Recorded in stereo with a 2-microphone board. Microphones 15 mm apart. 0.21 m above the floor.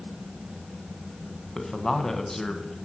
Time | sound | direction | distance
1.6 | a man speaking | 30° left (ahead or behind) | 1.4 m